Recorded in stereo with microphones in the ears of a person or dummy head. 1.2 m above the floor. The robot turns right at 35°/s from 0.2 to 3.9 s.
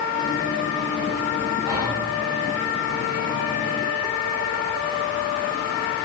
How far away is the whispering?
About 5.5 m.